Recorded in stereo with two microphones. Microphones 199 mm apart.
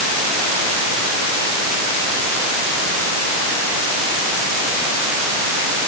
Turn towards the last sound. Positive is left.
No sound to turn to.